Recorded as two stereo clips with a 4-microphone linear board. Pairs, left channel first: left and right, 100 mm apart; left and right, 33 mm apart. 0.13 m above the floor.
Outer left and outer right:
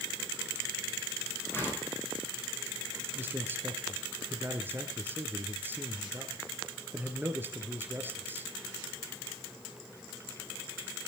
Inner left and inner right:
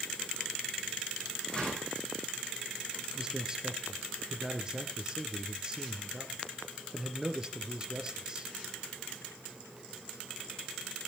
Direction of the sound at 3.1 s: 20° right (ahead or behind).